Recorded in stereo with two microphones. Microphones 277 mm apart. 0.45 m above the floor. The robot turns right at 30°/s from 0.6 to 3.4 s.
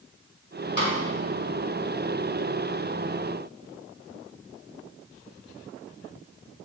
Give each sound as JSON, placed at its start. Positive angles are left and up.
{"t": 0.8, "sound": "a snare drum", "side_deg": 40, "distance_m": 1.8}